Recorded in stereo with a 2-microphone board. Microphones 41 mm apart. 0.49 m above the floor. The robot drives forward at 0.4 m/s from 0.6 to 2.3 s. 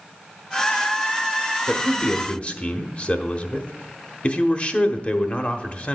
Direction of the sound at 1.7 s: 30° left (ahead or behind).